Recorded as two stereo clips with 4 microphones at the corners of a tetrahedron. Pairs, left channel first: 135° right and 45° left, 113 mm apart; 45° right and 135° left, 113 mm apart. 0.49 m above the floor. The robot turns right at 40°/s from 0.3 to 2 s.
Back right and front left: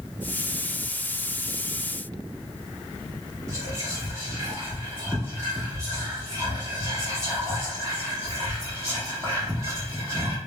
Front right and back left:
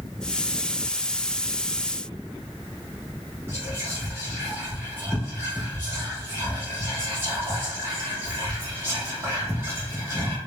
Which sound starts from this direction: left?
Whispering, at 3.5 s.